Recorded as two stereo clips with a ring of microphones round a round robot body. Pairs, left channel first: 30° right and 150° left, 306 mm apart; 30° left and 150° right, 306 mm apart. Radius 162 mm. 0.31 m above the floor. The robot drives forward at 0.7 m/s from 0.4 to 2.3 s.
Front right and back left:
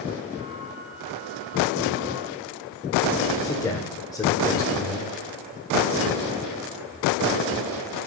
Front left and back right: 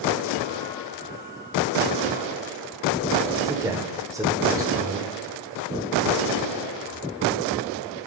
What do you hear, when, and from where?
3.4 s a man speaking: 90° right, 1.2 m